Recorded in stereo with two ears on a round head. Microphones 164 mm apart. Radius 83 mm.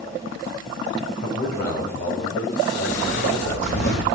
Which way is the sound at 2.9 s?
75° left (ahead or behind).